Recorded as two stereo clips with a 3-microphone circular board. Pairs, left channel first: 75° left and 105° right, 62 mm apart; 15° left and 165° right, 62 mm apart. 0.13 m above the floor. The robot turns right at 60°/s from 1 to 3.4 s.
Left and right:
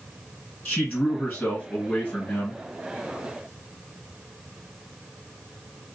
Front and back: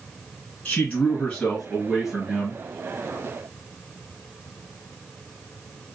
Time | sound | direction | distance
0.7 | a man speaking | 60° left | 1.4 m